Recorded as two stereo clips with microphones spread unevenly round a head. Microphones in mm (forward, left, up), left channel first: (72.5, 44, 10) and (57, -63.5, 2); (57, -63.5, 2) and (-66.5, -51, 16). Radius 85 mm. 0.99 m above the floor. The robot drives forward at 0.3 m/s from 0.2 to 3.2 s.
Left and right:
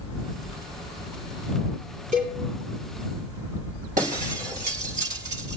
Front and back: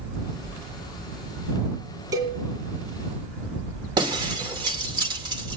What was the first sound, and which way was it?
A cowbell, 125° right.